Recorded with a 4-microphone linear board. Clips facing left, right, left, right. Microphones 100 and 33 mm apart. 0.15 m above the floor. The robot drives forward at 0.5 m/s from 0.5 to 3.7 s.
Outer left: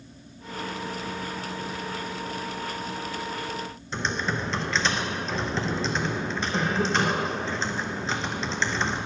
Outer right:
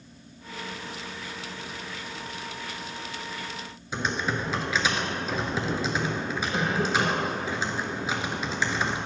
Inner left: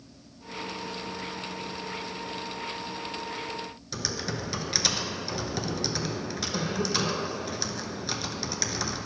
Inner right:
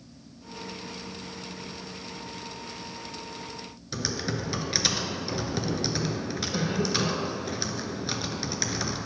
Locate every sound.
3.9 s typing on a keyboard: 10° right (ahead or behind), 0.6 m